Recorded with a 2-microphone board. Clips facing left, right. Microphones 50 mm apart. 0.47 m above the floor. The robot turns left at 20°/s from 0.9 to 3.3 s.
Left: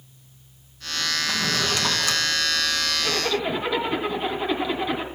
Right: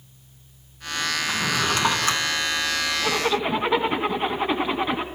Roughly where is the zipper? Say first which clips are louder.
Right 3 dB; right.